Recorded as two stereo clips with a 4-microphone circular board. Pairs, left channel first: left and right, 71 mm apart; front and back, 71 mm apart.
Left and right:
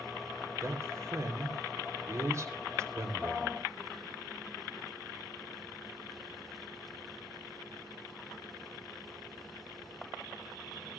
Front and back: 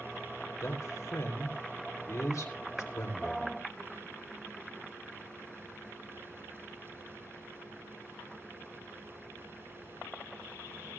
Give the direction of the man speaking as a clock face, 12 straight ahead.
1 o'clock.